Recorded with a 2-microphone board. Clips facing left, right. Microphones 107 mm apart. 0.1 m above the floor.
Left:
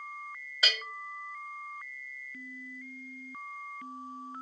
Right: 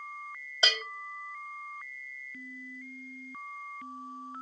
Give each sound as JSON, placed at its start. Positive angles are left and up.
{"t": 0.6, "sound": "a bell", "side_deg": -30, "distance_m": 0.9}